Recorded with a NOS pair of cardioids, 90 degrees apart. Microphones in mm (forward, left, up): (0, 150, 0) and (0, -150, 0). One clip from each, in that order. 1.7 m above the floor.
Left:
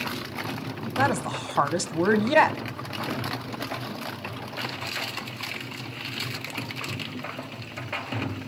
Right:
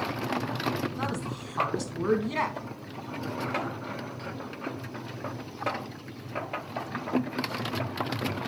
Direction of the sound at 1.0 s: 65° left.